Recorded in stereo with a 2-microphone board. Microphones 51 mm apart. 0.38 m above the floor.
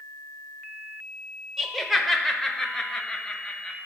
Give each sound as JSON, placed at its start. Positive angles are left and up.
{"t": 1.6, "sound": "laughter", "side_deg": -5, "distance_m": 0.8}